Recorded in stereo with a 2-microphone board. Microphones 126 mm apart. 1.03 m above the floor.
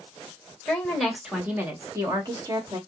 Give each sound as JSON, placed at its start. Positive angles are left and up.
{"t": 0.7, "sound": "a woman speaking", "side_deg": 10, "distance_m": 1.3}